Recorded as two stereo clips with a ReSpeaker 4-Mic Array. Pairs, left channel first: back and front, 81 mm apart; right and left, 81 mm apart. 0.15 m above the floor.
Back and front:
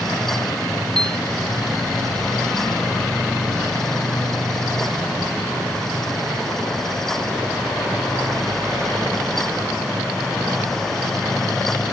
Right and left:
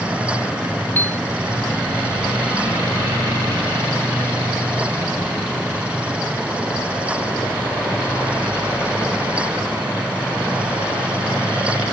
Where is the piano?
25° right.